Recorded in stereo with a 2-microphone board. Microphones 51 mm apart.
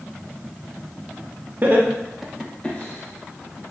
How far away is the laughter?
About 0.6 m.